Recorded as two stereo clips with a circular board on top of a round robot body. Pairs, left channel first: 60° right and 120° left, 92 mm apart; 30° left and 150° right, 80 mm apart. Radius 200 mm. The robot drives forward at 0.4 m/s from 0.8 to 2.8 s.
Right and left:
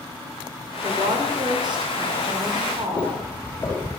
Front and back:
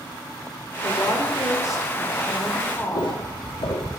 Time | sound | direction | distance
0.8 | a woman speaking | 75° left | 4 m
3.0 | footsteps | 10° left | 3.5 m